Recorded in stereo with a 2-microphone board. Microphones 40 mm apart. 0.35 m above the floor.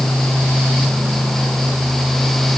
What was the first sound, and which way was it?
Only background noise.